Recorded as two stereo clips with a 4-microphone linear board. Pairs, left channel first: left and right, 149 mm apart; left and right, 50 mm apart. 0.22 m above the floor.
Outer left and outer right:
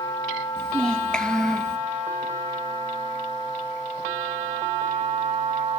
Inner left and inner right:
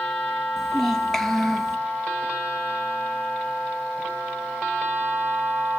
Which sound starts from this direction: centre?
A child speaking, at 0.6 s.